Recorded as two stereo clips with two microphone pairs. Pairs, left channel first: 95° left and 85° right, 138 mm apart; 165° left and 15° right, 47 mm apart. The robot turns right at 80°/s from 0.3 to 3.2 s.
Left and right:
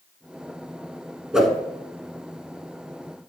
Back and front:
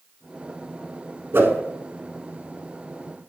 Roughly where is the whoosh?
Ahead.